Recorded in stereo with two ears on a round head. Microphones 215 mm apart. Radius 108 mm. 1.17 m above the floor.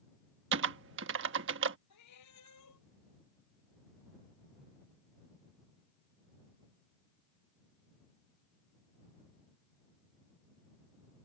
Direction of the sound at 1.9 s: 80° left.